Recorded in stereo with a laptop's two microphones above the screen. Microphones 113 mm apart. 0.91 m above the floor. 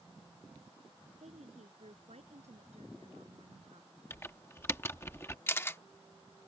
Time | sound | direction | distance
1.2 | a woman speaking | 85° right | ?
4.1 | typing on a keyboard | 25° left (ahead or behind) | ?
5.5 | a camera shutter | 20° left (ahead or behind) | ?